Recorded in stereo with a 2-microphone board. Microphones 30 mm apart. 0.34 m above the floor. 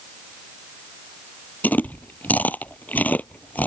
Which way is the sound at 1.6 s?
80° left.